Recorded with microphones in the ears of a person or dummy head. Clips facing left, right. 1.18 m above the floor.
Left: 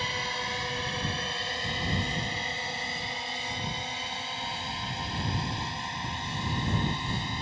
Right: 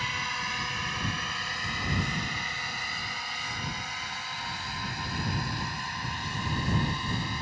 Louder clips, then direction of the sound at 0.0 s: Left 3 dB; 20° left (ahead or behind).